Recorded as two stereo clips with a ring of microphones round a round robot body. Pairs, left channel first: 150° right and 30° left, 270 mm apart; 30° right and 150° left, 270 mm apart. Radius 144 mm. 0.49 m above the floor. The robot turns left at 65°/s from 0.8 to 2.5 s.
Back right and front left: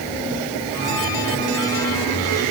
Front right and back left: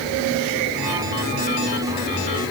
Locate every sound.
Only background noise.